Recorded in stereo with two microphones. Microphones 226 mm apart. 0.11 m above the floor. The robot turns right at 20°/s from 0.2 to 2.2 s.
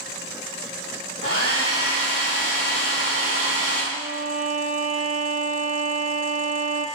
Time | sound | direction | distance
1.2 | a hair dryer | 60° left (ahead or behind) | 2.5 m
3.9 | a violin | 35° right (ahead or behind) | 0.7 m